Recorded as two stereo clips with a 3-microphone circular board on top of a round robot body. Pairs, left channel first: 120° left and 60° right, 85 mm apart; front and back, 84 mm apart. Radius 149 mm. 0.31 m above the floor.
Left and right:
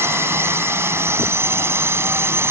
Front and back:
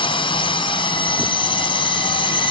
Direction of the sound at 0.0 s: Straight ahead.